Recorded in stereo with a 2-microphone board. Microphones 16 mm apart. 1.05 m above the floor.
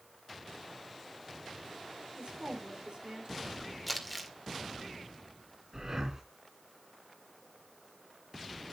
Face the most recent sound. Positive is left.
turn(degrees=-35)  # may be behind; listen again after turning